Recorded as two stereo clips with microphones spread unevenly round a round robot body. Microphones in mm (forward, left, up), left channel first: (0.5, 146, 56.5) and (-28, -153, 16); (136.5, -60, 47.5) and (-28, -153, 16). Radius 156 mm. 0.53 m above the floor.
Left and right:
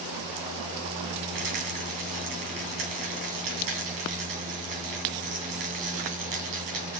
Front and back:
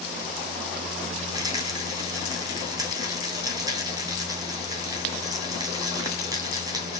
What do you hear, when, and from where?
1.3 s a rattle: 80° right, 3 m